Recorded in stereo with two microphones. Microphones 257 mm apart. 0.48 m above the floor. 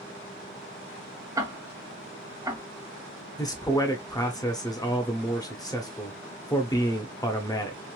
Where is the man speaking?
15° left (ahead or behind), 0.7 m.